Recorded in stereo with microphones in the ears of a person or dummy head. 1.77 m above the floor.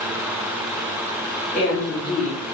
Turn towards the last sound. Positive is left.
turn(degrees=45)  # may be behind; listen again after turning